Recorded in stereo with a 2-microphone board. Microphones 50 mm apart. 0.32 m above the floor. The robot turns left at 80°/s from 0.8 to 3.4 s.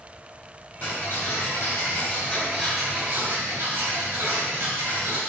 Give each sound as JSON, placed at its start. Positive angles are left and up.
{"t": 0.8, "sound": "ticking", "azimuth_deg": 155, "distance_m": 3.5}